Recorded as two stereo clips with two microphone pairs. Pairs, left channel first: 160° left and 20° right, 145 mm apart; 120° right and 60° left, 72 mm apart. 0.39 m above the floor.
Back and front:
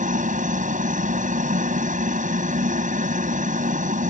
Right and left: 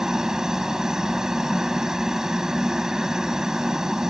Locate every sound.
0.0 s a helicopter: 20° right